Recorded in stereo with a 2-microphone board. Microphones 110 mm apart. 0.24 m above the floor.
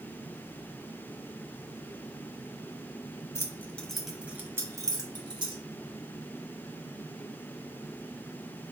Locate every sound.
3.4 s keys jangling: 30° left (ahead or behind), 0.9 m; by 5.6 s 50° right (ahead or behind), 1.4 m